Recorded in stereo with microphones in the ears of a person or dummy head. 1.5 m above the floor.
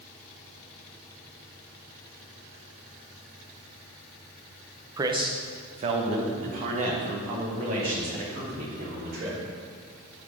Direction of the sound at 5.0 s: 20° right (ahead or behind).